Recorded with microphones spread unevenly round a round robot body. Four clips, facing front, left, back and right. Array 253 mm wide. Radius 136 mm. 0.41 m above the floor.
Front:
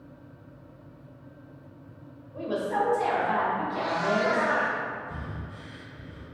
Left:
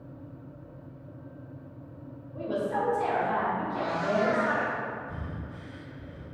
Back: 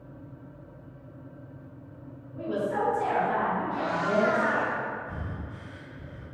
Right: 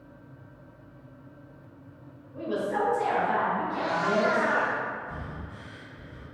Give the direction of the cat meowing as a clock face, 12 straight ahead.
6 o'clock.